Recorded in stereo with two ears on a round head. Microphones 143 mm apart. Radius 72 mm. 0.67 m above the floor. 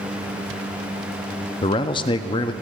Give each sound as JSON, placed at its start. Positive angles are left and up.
{"t": 1.6, "sound": "a man speaking", "side_deg": 30, "distance_m": 0.5}